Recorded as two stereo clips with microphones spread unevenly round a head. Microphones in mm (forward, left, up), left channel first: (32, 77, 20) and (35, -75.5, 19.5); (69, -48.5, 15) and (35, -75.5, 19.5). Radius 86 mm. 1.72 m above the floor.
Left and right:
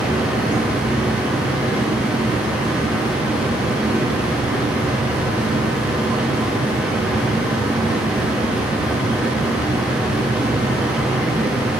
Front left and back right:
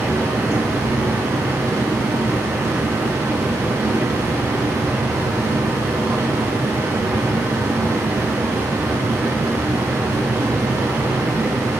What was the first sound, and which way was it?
A fan, 175° right.